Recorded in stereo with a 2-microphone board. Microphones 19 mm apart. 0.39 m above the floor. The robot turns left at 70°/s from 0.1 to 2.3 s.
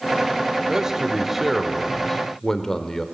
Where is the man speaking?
25° right (ahead or behind), 1.0 m; by 3.0 s 20° left (ahead or behind), 1.0 m.